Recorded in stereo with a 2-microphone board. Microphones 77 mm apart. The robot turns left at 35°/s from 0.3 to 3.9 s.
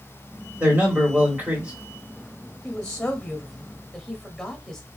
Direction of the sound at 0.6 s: 20° right (ahead or behind).